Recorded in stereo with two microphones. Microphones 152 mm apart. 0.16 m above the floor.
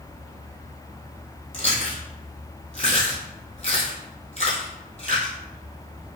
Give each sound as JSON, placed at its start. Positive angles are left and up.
{"t": 1.5, "sound": "chewing", "side_deg": 45, "distance_m": 1.6}